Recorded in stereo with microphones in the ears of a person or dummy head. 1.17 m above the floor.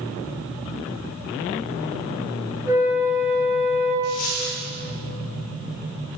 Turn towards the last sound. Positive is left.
turn(degrees=50)  # may be behind; listen again after turning